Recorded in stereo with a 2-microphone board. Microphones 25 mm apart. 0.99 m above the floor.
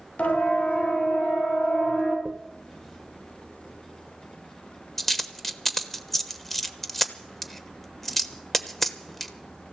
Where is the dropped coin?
10° left (ahead or behind), 1.0 m.